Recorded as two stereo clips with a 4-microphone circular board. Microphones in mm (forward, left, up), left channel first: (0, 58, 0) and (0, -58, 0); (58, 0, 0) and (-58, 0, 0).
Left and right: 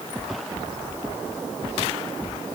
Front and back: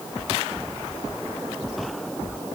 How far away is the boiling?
No boiling in this recording.